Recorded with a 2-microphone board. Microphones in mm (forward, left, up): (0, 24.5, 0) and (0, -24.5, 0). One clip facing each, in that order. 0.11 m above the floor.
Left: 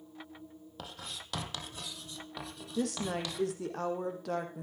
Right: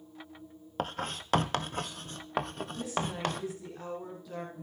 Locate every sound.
0.8 s writing: 50° right (ahead or behind), 1.1 m
2.8 s a woman speaking: 70° left (ahead or behind), 4 m